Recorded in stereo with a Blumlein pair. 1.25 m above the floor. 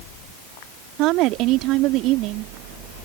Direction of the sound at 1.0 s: 40° right.